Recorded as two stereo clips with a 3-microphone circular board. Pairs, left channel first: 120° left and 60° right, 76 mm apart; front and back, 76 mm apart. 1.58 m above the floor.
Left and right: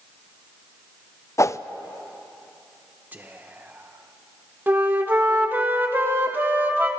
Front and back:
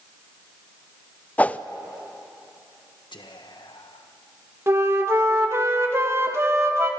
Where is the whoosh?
70° left, 0.5 m.